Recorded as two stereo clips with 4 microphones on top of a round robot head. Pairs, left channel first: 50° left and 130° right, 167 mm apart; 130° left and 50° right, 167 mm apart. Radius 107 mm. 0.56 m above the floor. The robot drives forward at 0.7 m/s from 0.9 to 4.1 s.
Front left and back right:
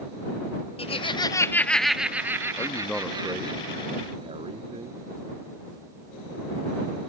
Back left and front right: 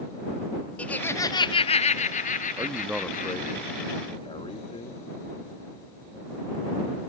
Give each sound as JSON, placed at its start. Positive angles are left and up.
{"t": 0.8, "sound": "laughter", "azimuth_deg": 55}
{"t": 2.6, "sound": "a man speaking", "azimuth_deg": 0}